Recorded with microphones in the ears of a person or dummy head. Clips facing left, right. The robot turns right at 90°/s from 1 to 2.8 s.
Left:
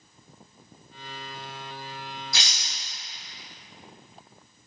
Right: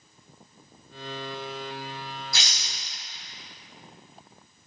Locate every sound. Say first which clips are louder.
2.3 s a rattle: even; 50° left (ahead or behind), 1.2 m; by 2.7 s 55° left (ahead or behind), 1.2 m